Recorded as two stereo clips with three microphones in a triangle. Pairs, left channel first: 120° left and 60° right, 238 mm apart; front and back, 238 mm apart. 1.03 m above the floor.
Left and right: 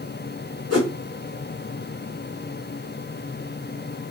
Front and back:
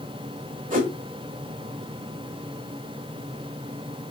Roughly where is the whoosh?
Behind left.